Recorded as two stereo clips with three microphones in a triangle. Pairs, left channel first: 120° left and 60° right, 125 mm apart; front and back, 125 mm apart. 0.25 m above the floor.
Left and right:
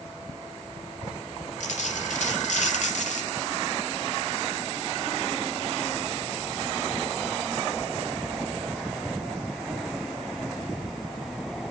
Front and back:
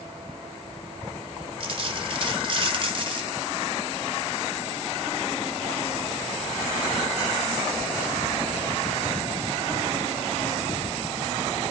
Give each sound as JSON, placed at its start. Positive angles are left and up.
{"t": 1.6, "sound": "a dropped coin", "azimuth_deg": 135, "distance_m": 1.6}